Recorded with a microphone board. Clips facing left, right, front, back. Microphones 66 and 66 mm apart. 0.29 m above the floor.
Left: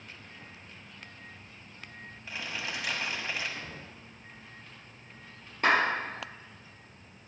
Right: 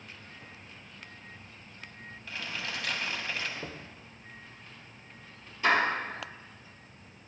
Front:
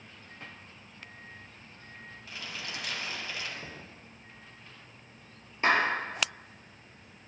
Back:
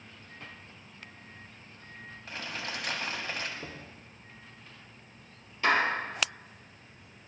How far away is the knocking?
About 2.0 m.